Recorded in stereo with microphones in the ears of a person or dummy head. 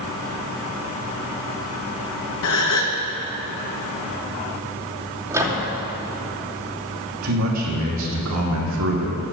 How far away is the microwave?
About 2.5 m.